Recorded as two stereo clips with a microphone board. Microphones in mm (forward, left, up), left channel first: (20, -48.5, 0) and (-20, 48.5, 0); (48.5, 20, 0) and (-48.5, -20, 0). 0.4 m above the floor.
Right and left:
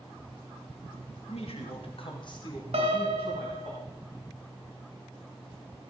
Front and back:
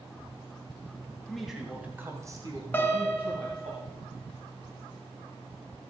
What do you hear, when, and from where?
1.3 s a man speaking: 65° right, 2.5 m; by 3.7 s 150° right, 3 m
2.7 s a piano: 95° left, 1.6 m